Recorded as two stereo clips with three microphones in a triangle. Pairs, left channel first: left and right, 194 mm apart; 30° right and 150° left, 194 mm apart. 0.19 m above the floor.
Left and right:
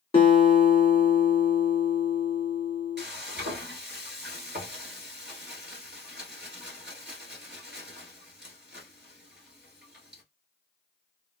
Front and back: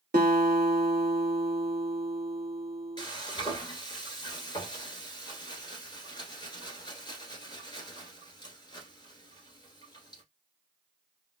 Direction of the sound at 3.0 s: 95° right.